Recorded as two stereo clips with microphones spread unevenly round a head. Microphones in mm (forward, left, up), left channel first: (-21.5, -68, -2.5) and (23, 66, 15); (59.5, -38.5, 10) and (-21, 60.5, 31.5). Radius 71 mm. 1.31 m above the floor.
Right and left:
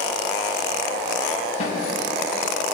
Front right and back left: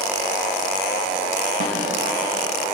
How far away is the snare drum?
About 5.5 m.